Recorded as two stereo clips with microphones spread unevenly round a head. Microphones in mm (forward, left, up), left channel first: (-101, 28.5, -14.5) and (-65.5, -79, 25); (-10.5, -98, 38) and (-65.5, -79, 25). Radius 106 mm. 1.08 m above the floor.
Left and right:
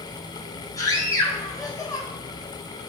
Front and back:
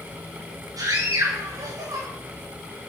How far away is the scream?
About 8 m.